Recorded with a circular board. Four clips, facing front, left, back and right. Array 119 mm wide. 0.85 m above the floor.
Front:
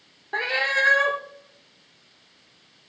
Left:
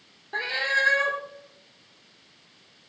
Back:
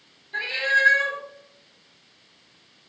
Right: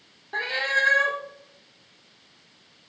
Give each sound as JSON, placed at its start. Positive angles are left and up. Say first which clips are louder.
{"t": 0.3, "sound": "a cat meowing", "louder": "right 1 dB, back 1 dB", "azimuth_deg": 0, "distance_m": 0.7}